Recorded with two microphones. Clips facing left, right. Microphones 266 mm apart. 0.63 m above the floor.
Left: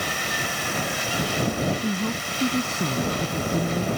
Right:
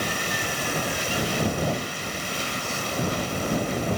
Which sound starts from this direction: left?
A woman speaking, at 1.8 s.